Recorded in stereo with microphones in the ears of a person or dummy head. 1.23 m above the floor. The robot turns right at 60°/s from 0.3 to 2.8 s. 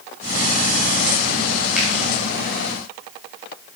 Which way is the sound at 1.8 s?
Centre (ahead or behind).